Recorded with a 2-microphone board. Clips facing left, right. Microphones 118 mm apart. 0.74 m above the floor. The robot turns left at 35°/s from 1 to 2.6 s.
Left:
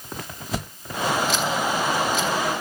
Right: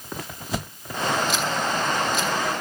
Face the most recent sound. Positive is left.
No sound to turn to.